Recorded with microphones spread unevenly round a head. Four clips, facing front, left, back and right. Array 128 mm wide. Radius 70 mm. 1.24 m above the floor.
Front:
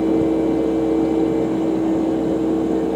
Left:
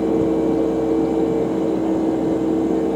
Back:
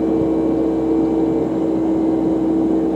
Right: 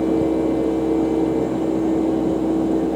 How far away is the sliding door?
I don't hear a sliding door.